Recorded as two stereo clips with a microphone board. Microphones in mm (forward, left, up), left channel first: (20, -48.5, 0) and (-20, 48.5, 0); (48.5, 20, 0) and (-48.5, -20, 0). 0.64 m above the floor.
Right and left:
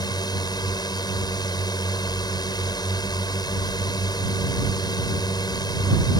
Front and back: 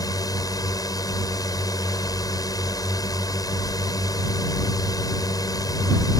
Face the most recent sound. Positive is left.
turn(degrees=-25)